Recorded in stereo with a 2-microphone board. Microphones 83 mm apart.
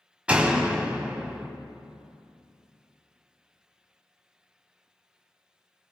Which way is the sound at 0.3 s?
15° right (ahead or behind).